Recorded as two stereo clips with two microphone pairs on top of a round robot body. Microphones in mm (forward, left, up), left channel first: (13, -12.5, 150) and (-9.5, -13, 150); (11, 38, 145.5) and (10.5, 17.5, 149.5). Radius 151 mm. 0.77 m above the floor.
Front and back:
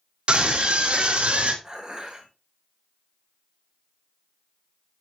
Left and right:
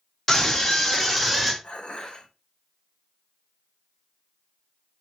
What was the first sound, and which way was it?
A scream, 155° left.